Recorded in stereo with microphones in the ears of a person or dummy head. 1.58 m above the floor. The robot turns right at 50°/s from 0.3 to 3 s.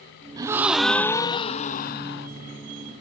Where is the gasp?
20° right, 0.6 m; by 2.3 s 75° left, 0.6 m.